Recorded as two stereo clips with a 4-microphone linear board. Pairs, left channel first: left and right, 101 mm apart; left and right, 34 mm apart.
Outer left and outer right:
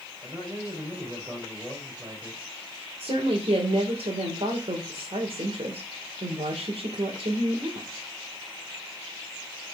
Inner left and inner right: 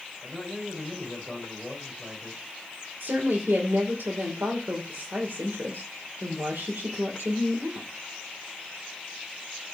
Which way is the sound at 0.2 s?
20° right (ahead or behind).